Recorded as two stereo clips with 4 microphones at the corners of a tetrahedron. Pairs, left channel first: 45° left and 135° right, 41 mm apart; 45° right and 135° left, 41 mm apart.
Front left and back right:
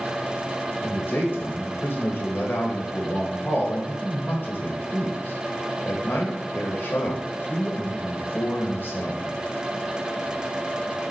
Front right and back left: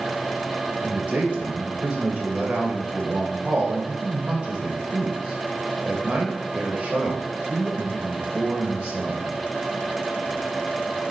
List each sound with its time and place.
0.8 s a man speaking: 85° left, 2 m